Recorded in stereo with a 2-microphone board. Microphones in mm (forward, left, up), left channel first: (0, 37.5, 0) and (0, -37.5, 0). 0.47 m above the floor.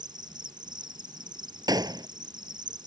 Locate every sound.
0.0 s an insect: 75° right (ahead or behind)
1.7 s a gunshot: 60° right (ahead or behind)